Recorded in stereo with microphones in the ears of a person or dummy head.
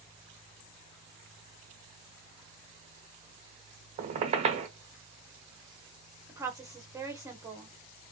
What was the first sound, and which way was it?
A squeak, 35° right (ahead or behind).